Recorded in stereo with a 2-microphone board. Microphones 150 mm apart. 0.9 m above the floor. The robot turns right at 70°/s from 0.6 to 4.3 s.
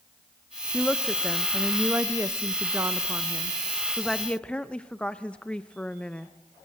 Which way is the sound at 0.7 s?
15° left (ahead or behind).